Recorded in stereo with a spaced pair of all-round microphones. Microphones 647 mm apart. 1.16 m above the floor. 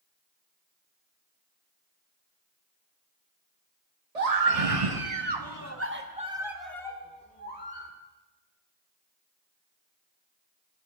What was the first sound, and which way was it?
A scream, 75° right (ahead or behind).